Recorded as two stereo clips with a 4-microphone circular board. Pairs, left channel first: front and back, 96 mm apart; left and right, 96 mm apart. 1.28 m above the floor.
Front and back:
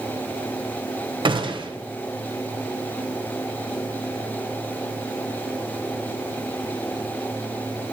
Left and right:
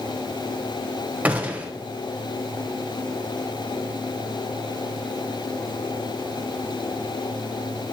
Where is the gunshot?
165° right, 0.7 m.